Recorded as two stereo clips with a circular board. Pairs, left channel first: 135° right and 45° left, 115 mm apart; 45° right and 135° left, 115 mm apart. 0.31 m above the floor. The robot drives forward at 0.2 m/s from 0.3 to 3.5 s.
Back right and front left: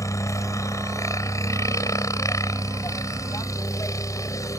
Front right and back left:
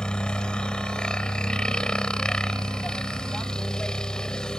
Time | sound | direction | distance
0.0 | a helicopter | 120° right | ?